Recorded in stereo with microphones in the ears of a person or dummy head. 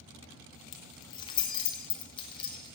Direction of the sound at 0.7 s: 30° left (ahead or behind).